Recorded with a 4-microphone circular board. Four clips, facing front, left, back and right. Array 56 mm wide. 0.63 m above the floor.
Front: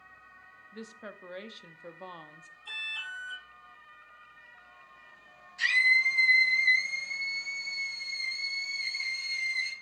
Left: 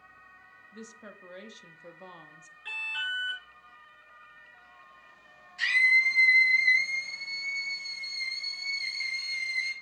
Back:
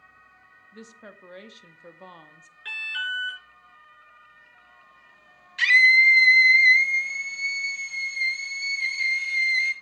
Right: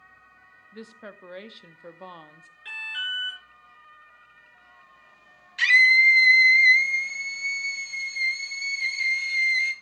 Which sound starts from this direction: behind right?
A scream, at 5.6 s.